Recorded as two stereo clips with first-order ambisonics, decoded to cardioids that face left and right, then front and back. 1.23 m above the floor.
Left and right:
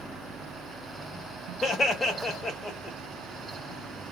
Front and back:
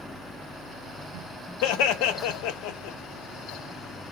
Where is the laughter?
15° left, 0.8 m.